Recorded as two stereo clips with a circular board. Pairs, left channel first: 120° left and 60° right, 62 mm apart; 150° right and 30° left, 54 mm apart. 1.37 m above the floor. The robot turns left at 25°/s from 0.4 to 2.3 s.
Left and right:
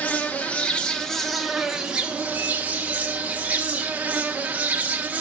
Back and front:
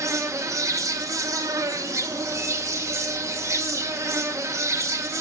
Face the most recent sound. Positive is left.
turn(degrees=10)